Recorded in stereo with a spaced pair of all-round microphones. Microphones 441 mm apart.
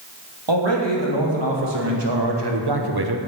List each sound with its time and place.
0.5 s a man speaking: 75° right (ahead or behind), 2.5 m; by 3.2 s 55° right (ahead or behind), 0.8 m